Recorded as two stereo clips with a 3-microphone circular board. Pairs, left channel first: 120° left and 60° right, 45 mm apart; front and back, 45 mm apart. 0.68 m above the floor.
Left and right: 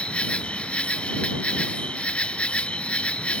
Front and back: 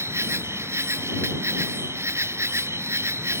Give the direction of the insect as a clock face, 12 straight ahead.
6 o'clock.